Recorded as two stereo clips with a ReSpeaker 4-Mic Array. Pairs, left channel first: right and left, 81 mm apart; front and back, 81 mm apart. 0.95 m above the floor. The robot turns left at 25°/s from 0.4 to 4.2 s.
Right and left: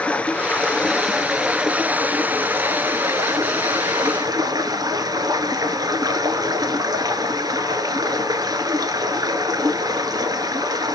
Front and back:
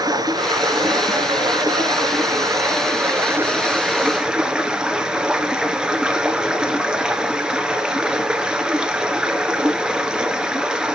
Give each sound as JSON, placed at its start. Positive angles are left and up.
{"t": 0.0, "sound": "running water", "azimuth_deg": -165, "distance_m": 1.4}